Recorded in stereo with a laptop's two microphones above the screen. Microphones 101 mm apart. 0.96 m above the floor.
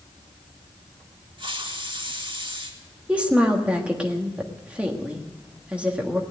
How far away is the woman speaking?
About 1.4 m.